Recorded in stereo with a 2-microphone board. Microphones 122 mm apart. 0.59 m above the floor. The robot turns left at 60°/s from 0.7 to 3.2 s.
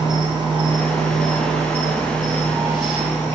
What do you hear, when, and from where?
0.0 s an insect: 50° right, 1.4 m; by 3.4 s 160° left, 1.4 m